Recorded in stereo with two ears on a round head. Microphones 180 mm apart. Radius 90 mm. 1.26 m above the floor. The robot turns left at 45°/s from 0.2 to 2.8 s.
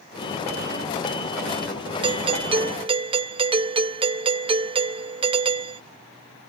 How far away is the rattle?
No rattle in this recording.